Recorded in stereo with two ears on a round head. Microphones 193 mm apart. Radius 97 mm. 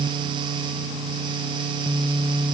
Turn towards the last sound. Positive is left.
No sound to turn to.